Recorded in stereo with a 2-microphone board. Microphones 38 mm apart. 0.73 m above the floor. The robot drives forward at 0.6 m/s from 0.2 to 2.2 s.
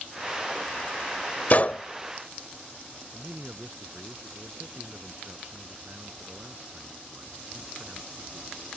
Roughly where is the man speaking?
Right.